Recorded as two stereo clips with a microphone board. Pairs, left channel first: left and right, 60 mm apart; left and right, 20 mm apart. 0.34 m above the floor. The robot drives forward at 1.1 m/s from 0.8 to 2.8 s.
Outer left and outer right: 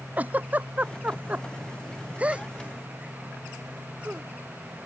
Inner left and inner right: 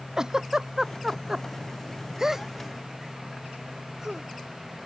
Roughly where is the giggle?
Right.